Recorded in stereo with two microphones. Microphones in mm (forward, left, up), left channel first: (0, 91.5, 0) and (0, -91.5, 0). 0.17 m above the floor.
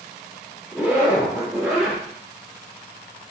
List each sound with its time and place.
0.7 s a zipper: 5° right (ahead or behind), 2 m